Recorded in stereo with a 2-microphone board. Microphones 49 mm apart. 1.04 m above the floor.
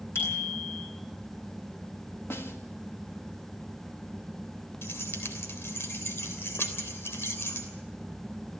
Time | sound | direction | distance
0.1 | a bicycle bell | 55° left (ahead or behind) | 9 m
2.3 | a snare drum | 55° left (ahead or behind) | 1.8 m
4.8 | keys jangling | 55° left (ahead or behind) | 3 m